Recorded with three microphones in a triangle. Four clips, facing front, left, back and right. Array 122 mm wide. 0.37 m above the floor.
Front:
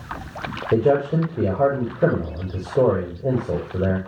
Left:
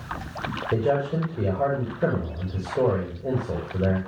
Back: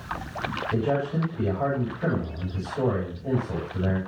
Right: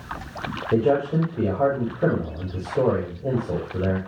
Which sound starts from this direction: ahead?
A man speaking, at 0.7 s.